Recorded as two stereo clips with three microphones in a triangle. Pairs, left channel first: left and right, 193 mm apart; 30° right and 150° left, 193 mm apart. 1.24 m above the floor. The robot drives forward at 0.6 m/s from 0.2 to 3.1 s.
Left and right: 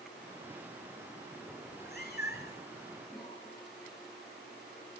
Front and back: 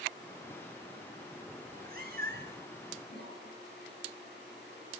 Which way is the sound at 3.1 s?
Straight ahead.